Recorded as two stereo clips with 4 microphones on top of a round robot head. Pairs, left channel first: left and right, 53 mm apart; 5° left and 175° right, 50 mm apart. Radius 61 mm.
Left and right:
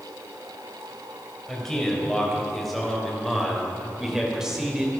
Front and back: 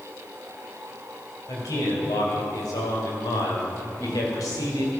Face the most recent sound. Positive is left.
turn(degrees=-15)